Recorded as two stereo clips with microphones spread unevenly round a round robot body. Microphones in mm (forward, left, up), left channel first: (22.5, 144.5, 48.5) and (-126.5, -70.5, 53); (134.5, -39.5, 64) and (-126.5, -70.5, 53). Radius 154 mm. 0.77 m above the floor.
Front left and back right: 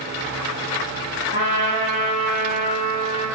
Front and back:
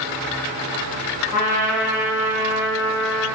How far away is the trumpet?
About 1.8 m.